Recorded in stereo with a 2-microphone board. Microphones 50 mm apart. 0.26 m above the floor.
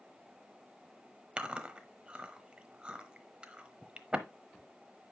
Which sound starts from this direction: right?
Chewing, at 1.4 s.